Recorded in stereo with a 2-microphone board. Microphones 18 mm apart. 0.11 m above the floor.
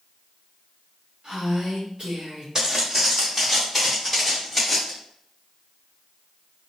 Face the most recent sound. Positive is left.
turn(degrees=5)  # may be behind; listen again after turning